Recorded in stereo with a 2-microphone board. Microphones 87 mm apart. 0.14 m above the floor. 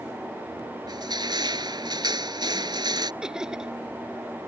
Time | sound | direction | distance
0.9 | crushing | 55° right (ahead or behind) | ?
3.2 | laughter | 10° right (ahead or behind) | ?